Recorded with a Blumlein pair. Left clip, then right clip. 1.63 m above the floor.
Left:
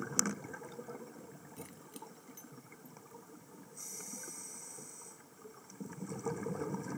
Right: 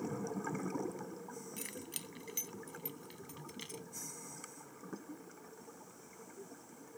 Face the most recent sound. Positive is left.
turn(degrees=-40)